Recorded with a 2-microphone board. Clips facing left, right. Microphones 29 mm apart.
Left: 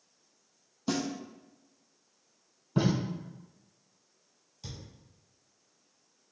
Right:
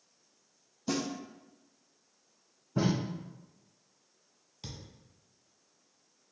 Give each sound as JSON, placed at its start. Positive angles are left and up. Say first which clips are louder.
{"t": 0.9, "sound": "a snare drum", "louder": "left 1 dB", "side_deg": 30, "distance_m": 1.5}
{"t": 2.8, "sound": "tape being pulled", "louder": "left 2 dB", "side_deg": 70, "distance_m": 1.7}
{"t": 4.6, "sound": "a thud", "louder": "even", "side_deg": -40, "distance_m": 1.4}